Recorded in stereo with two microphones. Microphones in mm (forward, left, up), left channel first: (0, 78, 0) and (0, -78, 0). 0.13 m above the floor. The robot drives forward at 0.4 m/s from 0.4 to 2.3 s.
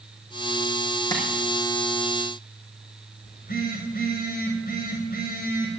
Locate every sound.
1.1 s tapping: 25° left (ahead or behind), 4.5 m
3.2 s a phone buzzing: 80° left, 6 m